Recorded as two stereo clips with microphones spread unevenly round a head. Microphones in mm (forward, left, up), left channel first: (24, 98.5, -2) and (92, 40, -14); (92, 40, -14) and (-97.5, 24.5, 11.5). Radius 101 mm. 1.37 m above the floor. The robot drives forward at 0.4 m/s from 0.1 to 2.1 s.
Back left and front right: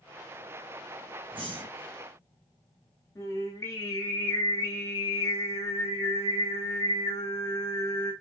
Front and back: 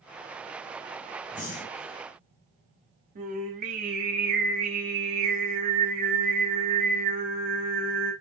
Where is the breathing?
40° right, 1.0 m; by 1.9 s 50° right, 0.9 m.